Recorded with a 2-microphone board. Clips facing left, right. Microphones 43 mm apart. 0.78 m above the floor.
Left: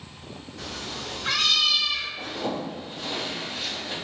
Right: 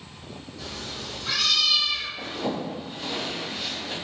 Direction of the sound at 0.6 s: 65° left (ahead or behind).